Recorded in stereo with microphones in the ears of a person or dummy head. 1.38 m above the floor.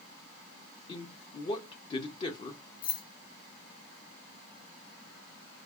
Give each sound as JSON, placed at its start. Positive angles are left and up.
{"t": 0.9, "sound": "a man speaking", "side_deg": 30, "distance_m": 0.6}
{"t": 2.8, "sound": "keys jangling", "side_deg": 25, "distance_m": 0.6}